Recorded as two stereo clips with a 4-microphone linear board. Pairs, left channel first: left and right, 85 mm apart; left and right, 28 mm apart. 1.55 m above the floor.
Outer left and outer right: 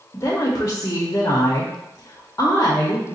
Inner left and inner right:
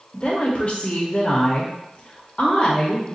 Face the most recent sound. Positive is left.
turn(degrees=35)  # may be behind; listen again after turning